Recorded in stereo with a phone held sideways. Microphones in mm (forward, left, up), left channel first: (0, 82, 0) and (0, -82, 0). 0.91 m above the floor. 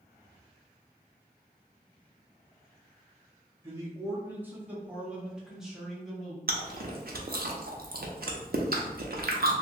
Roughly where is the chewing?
Right.